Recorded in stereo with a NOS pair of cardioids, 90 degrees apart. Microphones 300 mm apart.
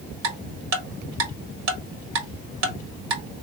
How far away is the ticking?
About 1.4 m.